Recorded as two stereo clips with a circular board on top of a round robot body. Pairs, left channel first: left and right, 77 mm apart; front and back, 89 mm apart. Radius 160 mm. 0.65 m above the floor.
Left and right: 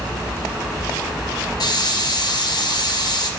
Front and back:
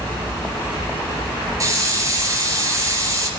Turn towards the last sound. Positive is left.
turn(degrees=125)